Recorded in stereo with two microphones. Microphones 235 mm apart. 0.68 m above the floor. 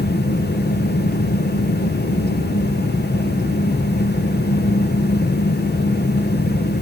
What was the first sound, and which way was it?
Only background noise.